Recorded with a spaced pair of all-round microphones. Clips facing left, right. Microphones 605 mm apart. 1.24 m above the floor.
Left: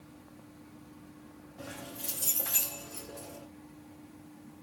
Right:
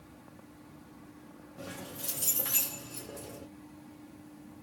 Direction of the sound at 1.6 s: 55° right (ahead or behind).